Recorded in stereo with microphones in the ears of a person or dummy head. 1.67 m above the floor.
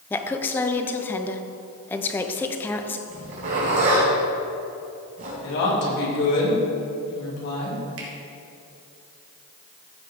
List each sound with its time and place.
0.1 s a woman speaking: 10° left (ahead or behind), 0.7 m
3.1 s a zipper: 45° right (ahead or behind), 3.5 m
5.4 s a woman speaking: 60° left (ahead or behind), 3 m
8.0 s a finger snap: 75° right (ahead or behind), 2 m